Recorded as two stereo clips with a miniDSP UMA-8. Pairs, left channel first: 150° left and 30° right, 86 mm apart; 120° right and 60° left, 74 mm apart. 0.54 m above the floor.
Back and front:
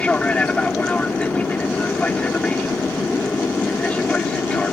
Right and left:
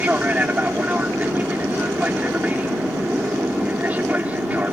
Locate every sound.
0.0 s an aircraft: 95° left